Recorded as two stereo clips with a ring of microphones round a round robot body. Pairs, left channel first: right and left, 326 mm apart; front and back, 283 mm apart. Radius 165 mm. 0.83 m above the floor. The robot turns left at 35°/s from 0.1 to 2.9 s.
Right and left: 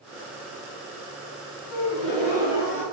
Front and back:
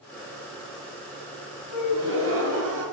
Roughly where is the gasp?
Right.